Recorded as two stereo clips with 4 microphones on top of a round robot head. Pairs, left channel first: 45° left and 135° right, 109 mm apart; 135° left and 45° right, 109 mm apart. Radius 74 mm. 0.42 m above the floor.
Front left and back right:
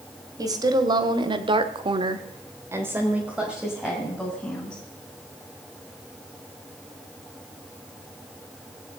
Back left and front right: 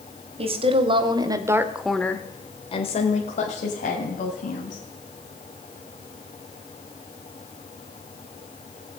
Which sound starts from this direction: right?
A woman speaking, at 0.4 s.